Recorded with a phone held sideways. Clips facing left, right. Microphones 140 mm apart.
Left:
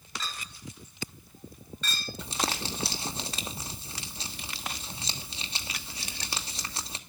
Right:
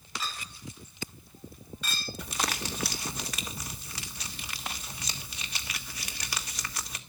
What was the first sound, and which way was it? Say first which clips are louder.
A clink: right 1 dB; 10° right (ahead or behind).